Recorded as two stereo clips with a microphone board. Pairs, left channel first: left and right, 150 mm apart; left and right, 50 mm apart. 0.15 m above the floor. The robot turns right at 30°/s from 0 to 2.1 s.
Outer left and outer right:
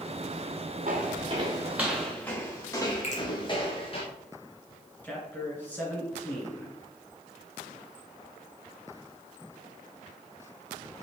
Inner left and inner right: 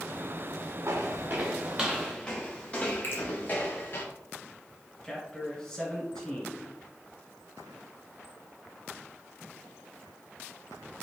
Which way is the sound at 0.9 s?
65° right (ahead or behind).